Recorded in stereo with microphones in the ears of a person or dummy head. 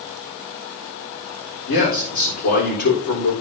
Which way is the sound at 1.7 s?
55° left (ahead or behind).